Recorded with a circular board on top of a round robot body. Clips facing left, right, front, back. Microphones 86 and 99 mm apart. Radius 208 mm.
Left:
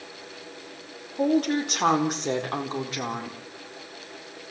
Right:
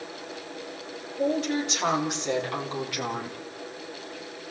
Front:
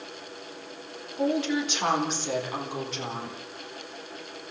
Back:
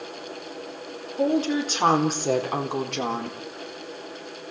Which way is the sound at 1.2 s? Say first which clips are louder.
Left 3 dB, back 3 dB; 125° left.